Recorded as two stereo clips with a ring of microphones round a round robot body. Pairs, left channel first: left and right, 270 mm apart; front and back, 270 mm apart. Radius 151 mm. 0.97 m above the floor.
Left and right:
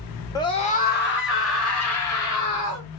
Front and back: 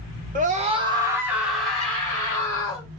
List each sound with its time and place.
0.3 s a scream: 155° left, 0.8 m; by 2.9 s 75° left, 1.6 m